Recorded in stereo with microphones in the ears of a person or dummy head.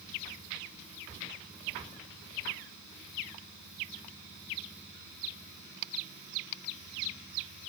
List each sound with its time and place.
Only background noise.